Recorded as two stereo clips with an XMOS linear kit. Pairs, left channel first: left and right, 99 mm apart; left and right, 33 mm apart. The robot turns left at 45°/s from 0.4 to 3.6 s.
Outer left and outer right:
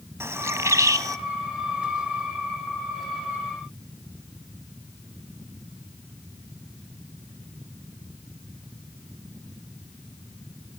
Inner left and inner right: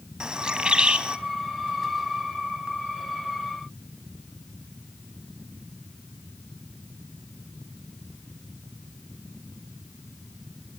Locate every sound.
0.2 s a bird: 25° right (ahead or behind), 0.6 m; by 1.2 s 35° right (ahead or behind), 0.6 m